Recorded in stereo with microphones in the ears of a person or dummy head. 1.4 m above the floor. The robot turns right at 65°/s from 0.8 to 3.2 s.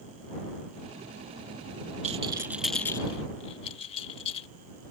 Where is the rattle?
40° right (ahead or behind); by 4.5 s 35° left (ahead or behind).